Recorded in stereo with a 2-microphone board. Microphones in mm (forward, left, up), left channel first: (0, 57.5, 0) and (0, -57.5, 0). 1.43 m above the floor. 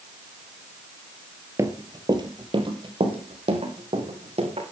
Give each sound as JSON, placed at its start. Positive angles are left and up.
{"t": 1.6, "sound": "running footsteps", "side_deg": -25, "distance_m": 1.6}